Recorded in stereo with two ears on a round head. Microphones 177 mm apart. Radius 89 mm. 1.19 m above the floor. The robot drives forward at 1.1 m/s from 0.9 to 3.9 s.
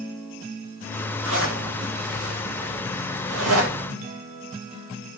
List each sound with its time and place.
1.2 s a zipper: 70° right (ahead or behind), 8 m; by 3.8 s 85° right, 7.5 m